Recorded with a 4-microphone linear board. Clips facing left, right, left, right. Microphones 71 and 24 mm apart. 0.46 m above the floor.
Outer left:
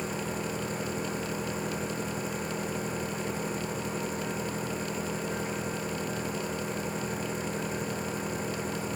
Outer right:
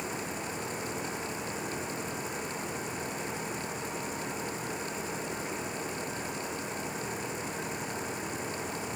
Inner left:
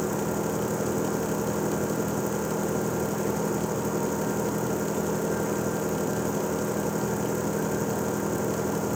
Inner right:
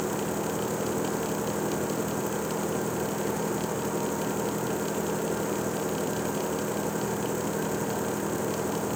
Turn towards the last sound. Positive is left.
turn(degrees=40)  # may be behind; listen again after turning